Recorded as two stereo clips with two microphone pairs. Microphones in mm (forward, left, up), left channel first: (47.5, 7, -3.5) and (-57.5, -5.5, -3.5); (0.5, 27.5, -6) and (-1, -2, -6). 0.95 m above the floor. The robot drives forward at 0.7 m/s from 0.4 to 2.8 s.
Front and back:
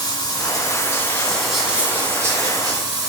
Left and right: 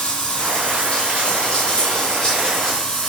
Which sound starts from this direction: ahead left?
Running water, at 0.0 s.